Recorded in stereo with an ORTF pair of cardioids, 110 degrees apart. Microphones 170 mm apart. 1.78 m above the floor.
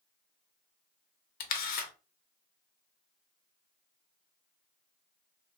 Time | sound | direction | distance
1.4 | a camera shutter | 65° left | 0.7 m